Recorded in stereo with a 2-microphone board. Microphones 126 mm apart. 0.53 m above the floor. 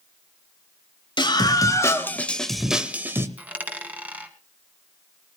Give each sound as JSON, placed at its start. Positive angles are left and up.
{"t": 1.2, "sound": "a scream", "side_deg": 35, "distance_m": 2.0}
{"t": 3.4, "sound": "a dropped coin", "side_deg": -10, "distance_m": 1.7}